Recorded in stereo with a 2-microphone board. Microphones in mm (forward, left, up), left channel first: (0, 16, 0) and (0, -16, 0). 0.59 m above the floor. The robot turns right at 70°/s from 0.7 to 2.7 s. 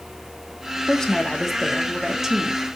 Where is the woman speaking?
20° left (ahead or behind), 0.7 m; by 2.8 s 20° right (ahead or behind), 0.7 m.